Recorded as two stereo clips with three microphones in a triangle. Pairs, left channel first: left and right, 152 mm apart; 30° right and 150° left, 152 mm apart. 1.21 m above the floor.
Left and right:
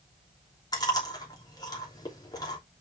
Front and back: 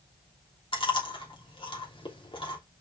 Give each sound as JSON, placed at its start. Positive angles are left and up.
{"t": 0.7, "sound": "chewing", "azimuth_deg": 25, "distance_m": 3.0}